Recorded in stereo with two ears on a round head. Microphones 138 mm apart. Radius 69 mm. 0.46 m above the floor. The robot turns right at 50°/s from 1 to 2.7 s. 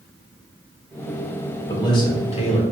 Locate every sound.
1.7 s a man speaking: 30° left, 1.0 m; by 2.6 s 75° left, 1.0 m